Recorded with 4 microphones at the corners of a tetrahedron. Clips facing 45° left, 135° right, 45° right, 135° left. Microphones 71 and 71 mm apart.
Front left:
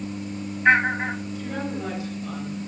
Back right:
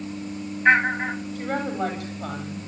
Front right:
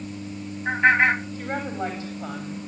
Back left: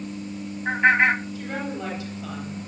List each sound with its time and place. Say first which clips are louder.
1.4 s a woman speaking: back right 3 dB, front right 2 dB; 100° right, 9.5 m; by 2.7 s 110° right, 9.5 m